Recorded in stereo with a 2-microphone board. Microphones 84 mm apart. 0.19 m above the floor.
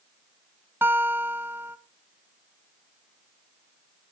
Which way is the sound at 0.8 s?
25° right (ahead or behind).